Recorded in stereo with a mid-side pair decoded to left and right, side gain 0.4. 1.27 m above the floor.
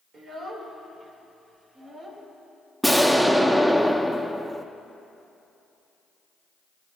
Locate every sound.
0.1 s a child speaking: 60° right, 3 m
2.8 s an explosion: 10° right, 0.8 m